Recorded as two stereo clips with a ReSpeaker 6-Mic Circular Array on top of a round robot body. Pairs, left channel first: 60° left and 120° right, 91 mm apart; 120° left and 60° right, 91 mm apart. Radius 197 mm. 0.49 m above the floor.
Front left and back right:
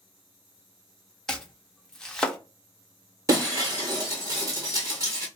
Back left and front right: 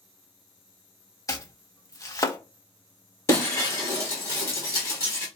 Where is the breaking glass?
Straight behind, 1.3 m.